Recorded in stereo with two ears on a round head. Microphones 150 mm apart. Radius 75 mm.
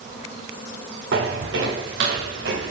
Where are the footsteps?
70° right (ahead or behind), 5 m; by 2.7 s 80° right, 5.5 m.